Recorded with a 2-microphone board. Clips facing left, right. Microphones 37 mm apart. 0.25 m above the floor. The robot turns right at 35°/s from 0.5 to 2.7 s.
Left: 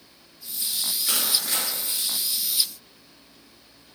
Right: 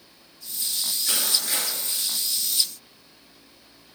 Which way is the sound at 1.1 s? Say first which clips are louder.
Even; 10° left (ahead or behind).